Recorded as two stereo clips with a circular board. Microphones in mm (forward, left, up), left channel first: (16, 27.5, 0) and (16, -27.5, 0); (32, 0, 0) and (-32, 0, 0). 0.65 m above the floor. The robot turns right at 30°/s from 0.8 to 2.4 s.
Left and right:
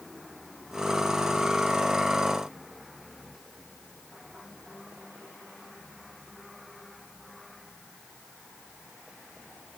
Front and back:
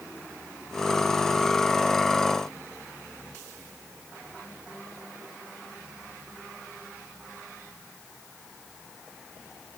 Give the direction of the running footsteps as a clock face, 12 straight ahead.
I don't hear running footsteps.